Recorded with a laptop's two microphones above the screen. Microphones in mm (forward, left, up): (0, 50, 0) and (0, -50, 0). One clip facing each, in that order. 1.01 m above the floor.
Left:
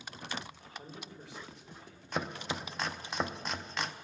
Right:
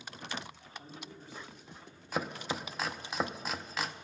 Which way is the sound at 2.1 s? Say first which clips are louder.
Right 1 dB; 5° right (ahead or behind).